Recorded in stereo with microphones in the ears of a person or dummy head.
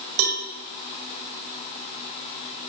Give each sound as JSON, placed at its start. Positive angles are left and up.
{"t": 0.2, "sound": "a cowbell", "side_deg": -85, "distance_m": 4.5}